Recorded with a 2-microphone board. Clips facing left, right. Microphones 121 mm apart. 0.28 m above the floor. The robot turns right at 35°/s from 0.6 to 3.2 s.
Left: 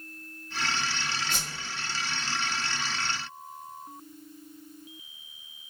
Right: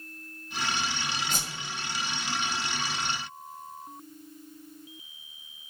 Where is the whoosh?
40° right (ahead or behind), 1.9 m; by 1.7 s 55° right (ahead or behind), 1.9 m.